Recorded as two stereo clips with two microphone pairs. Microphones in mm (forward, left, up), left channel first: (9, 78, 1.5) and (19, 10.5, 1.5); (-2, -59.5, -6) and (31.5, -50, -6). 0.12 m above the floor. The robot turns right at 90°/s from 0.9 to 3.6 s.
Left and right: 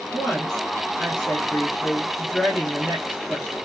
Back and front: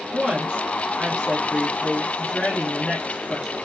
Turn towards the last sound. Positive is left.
turn(degrees=-85)